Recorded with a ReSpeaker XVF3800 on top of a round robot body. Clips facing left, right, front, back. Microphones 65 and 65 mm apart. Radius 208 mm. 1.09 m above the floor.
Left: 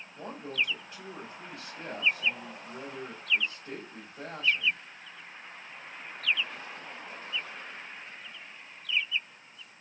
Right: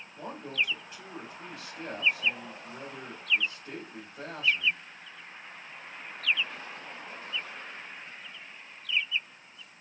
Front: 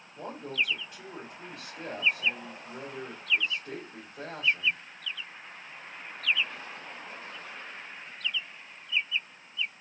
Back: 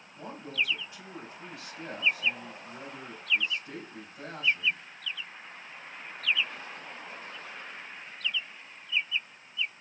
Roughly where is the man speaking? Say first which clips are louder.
Even, front 1 dB; ahead.